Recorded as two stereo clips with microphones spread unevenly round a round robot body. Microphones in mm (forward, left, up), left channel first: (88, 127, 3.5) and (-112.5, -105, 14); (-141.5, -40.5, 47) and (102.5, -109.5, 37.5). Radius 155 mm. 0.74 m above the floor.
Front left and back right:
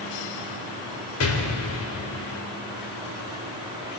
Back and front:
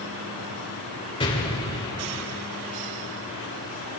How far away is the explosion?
About 2.5 m.